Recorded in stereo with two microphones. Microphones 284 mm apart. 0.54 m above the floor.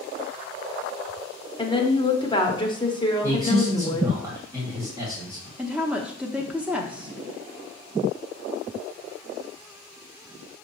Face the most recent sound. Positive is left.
turn(degrees=-5)  # may be behind; listen again after turning